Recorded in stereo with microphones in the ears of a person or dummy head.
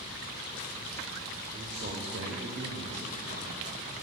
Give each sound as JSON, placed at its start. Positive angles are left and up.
{"t": 1.5, "sound": "a man speaking", "side_deg": -35, "distance_m": 1.0}